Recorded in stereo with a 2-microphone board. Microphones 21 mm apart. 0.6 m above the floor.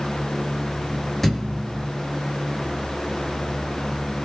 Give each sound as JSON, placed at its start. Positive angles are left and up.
{"t": 1.2, "sound": "a thud", "side_deg": 5, "distance_m": 4.5}